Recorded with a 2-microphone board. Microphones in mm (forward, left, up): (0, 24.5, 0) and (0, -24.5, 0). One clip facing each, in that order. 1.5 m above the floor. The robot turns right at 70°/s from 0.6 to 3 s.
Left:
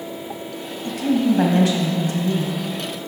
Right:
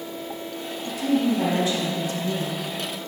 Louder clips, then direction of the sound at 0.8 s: Left 3 dB; 45° left.